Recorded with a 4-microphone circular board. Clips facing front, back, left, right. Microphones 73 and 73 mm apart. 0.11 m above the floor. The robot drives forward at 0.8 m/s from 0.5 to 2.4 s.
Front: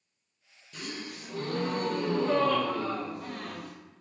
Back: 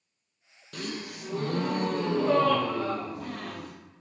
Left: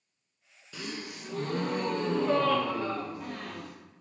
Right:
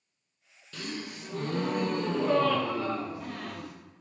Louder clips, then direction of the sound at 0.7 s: Back 3 dB, right 1 dB; 165° left.